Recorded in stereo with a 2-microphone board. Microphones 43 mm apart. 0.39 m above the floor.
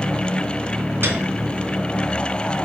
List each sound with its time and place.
1.0 s a piano: 60° right (ahead or behind), 3 m